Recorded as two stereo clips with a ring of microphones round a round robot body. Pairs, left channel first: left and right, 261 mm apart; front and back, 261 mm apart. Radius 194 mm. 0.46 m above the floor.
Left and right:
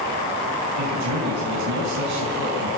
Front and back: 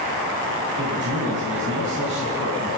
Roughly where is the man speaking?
Behind right.